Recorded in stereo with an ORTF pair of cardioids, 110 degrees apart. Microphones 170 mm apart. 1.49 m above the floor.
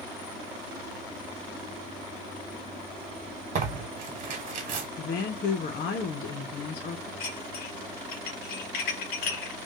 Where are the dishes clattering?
70° left, 1.6 m.